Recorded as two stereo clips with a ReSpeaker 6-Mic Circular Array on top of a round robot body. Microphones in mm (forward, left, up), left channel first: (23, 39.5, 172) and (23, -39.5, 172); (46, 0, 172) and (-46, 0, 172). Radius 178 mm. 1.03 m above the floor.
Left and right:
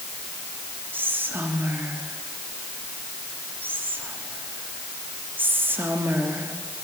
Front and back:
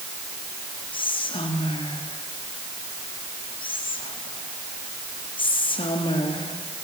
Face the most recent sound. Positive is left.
turn(degrees=-25)